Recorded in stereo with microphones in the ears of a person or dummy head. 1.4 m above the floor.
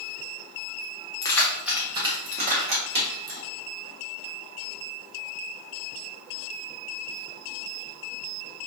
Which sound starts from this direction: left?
Keys jangling, at 1.2 s.